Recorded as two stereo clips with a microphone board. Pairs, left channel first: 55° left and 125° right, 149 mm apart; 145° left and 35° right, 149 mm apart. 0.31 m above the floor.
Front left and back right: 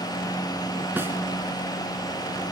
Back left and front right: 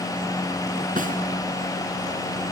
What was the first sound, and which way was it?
A snare drum, 50° right.